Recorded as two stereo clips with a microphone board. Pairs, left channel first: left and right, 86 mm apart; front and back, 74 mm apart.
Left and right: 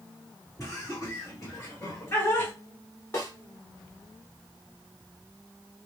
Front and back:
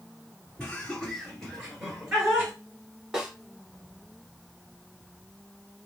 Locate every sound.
0.6 s laughter: 65° left, 2 m; by 2.5 s 120° left, 1.9 m
3.1 s a snare drum: 105° left, 1.1 m